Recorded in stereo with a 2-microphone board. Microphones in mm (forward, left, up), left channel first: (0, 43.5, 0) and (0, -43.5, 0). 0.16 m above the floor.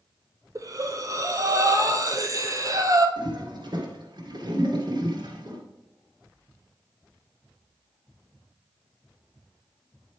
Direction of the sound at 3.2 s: 55° right (ahead or behind).